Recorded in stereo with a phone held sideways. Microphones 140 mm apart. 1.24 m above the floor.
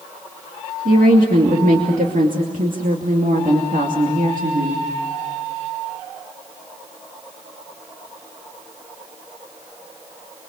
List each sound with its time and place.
0.8 s a woman speaking: 80° right, 2.5 m